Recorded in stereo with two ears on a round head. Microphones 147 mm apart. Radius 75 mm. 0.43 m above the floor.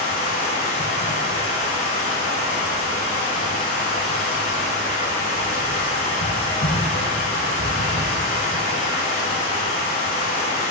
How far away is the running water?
About 0.9 m.